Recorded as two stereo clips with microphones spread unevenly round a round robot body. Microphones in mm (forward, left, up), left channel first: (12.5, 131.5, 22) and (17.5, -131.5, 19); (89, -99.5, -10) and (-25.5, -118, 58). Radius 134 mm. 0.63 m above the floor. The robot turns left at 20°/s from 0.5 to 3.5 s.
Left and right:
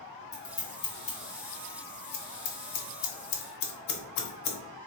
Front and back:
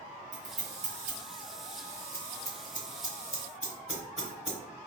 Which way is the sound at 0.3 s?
170° left.